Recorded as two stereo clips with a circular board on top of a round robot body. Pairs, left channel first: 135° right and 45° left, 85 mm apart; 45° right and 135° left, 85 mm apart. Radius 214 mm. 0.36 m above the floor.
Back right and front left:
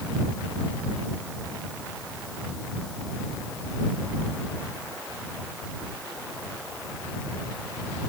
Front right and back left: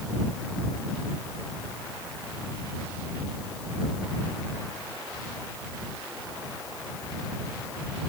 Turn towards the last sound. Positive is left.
No sound to turn to.